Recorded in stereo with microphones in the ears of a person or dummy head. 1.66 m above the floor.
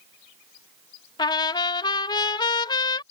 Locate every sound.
1.2 s a trumpet: 25° left (ahead or behind)